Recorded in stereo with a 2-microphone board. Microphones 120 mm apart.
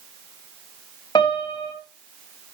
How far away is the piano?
About 2.5 m.